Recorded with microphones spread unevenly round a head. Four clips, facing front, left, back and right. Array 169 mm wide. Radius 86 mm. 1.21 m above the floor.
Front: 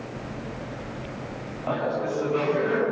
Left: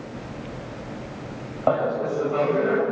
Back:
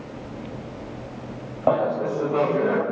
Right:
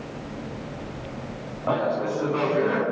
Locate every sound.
1.7 s laughter: 150° left, 6 m